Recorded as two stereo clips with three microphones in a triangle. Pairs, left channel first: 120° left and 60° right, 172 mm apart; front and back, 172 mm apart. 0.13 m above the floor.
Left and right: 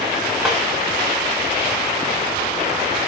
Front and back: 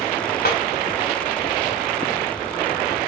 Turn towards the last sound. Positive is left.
turn(degrees=25)